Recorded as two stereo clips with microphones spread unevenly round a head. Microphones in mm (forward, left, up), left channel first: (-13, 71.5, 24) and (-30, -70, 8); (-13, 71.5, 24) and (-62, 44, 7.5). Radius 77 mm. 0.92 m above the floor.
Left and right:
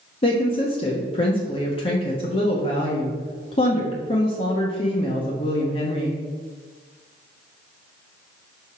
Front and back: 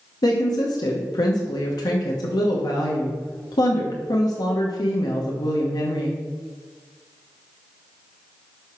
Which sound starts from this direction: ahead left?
A woman speaking, at 0.2 s.